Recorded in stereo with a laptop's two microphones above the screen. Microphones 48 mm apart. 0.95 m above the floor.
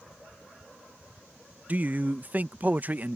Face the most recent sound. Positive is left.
turn(degrees=-35)  # may be behind; listen again after turning